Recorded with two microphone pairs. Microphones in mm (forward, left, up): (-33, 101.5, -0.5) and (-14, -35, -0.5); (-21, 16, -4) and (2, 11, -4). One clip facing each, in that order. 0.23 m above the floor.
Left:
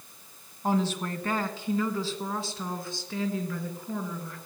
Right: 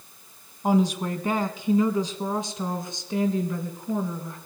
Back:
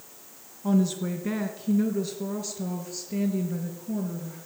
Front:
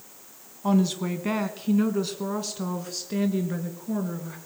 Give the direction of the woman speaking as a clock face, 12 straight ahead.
12 o'clock.